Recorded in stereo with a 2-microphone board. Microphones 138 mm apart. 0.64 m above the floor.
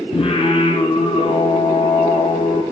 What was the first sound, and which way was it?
Singing, 45° left (ahead or behind).